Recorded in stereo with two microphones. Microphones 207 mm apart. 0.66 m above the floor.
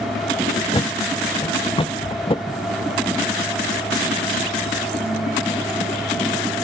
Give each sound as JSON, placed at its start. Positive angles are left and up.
{"t": 0.7, "sound": "a thud", "side_deg": 25}